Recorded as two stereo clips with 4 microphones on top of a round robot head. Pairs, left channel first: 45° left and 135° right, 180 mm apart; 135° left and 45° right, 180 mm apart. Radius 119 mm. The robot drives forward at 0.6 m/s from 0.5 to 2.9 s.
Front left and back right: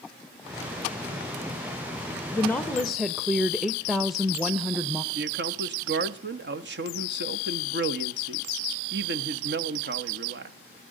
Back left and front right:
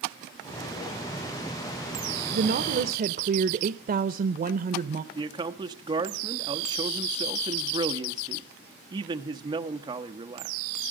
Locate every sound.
2.3 s a woman speaking: 30° right, 1.0 m; by 5.0 s 45° right, 0.8 m
5.1 s a man speaking: 115° right, 1.1 m